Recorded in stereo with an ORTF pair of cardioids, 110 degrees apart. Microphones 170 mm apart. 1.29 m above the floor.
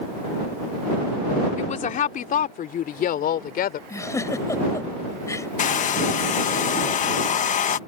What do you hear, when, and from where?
1.6 s a woman speaking: 45° left; by 3.8 s 60° left
3.9 s a giggle: 20° left
5.6 s a hair dryer: 45° left